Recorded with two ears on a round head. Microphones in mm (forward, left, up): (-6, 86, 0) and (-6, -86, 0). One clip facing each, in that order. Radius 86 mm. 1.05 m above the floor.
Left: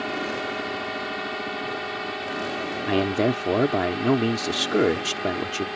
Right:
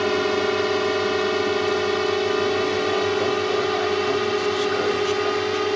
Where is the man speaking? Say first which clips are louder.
Right 1 dB; 65° left (ahead or behind).